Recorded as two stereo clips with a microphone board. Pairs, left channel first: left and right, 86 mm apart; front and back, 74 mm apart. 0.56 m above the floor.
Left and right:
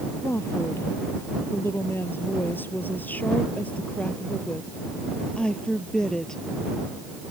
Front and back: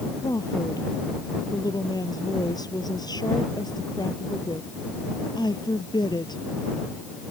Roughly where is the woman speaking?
Ahead left.